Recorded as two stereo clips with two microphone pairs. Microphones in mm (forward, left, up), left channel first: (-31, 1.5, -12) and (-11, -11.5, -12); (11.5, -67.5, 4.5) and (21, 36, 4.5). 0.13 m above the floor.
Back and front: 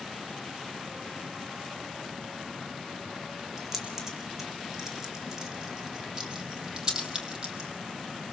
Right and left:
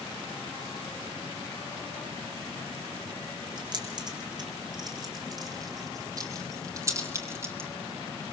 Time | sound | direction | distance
3.6 | keys jangling | 40° left | 5 m